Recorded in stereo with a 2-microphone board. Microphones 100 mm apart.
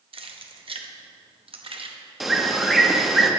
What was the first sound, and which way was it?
Keys jangling, 65° right (ahead or behind).